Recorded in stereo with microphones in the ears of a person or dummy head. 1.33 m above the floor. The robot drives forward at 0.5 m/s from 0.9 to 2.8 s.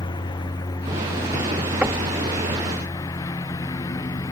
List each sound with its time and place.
0.0 s a lawn mower: 25° left (ahead or behind); by 4.3 s 20° left (ahead or behind)
1.8 s knocking: 15° right (ahead or behind)